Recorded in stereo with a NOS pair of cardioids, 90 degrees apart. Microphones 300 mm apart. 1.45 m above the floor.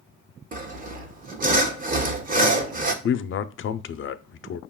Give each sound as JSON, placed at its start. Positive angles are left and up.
{"t": 0.5, "sound": "sawing", "azimuth_deg": -30, "distance_m": 0.9}
{"t": 3.0, "sound": "a man speaking", "azimuth_deg": 45, "distance_m": 0.5}